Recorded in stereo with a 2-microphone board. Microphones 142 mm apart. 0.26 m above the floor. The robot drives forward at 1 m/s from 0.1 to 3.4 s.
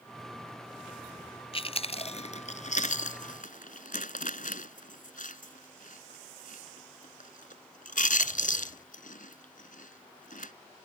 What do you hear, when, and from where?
1.5 s chewing: 40° left (ahead or behind); by 10.5 s 70° left (ahead or behind)